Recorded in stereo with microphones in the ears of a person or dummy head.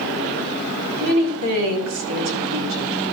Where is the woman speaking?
70° right (ahead or behind), 3.5 m; by 3.0 s 60° right (ahead or behind), 2.5 m.